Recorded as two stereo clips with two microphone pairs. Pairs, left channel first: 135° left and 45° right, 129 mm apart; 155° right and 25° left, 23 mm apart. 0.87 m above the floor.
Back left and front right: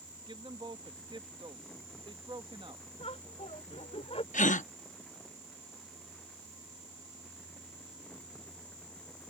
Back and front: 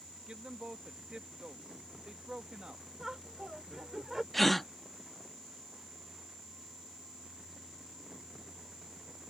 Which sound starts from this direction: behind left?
A gasp, at 4.3 s.